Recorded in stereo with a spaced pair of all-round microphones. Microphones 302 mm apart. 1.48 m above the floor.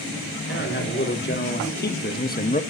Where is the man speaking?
40° left (ahead or behind), 2.5 m; by 2.6 s 25° left (ahead or behind), 0.6 m.